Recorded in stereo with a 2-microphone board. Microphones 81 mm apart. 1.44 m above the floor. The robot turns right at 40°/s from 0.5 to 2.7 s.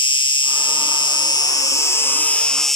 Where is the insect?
90° left; by 2.8 s straight behind.